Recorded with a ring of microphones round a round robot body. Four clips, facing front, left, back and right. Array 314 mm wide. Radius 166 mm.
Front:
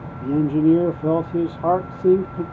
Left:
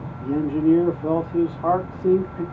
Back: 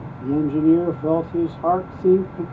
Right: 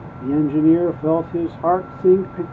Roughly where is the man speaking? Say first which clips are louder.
Right 5 dB, even; right.